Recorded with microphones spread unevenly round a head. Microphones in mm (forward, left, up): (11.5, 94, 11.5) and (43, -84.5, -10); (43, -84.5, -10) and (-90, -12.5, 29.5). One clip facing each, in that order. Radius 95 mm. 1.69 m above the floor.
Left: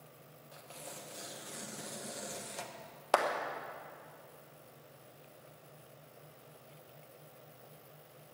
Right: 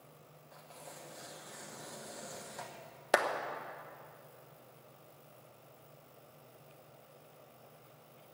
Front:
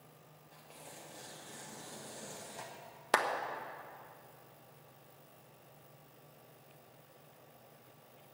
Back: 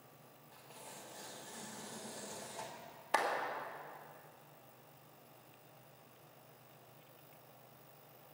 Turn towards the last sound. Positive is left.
turn(degrees=-5)